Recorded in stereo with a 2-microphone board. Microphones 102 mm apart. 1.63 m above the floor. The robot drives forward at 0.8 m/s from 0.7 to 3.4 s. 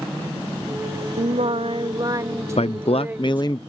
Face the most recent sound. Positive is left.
turn(degrees=40)  # may be behind; listen again after turning